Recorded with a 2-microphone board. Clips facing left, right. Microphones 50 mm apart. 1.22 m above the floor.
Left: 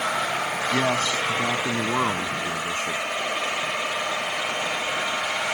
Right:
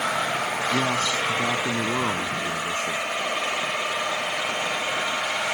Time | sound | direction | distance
0.7 | a man speaking | 30° left (ahead or behind) | ?